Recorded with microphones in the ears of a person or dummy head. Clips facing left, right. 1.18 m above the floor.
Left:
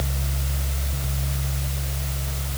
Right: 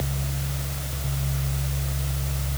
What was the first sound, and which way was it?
Only background noise.